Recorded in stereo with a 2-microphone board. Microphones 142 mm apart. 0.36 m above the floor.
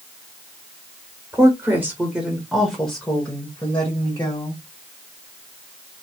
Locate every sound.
1.3 s a woman speaking: 20° right (ahead or behind), 1.1 m; by 4.6 s 20° left (ahead or behind), 1.7 m